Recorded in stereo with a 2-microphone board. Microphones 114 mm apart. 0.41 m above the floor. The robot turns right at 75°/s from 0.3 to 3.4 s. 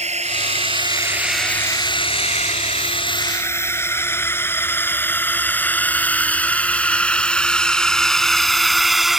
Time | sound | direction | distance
0.0 | a drone | 80° right | ?